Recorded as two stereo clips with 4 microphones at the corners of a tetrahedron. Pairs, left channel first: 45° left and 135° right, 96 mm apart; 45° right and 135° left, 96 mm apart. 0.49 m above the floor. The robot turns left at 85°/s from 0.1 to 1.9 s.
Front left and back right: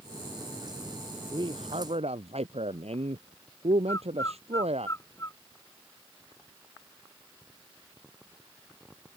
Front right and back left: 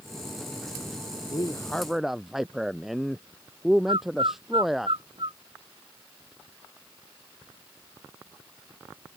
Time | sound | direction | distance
1.3 | a man speaking | 90° right | ?
3.9 | a bird | 105° left | ?